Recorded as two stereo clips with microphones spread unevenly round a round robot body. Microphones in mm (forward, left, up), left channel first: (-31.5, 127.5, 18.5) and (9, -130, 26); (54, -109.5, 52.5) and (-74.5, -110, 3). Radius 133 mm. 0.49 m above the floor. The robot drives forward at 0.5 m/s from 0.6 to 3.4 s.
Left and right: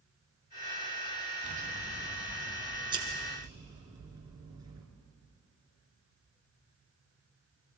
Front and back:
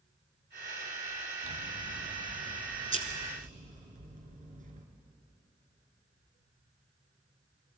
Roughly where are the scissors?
Behind right.